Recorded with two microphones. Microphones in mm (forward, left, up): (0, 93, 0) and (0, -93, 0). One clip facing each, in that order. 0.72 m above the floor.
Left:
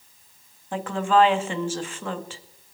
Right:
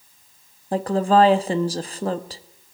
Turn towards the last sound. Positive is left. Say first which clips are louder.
# right 4 dB
turn(degrees=-40)  # may be behind; listen again after turning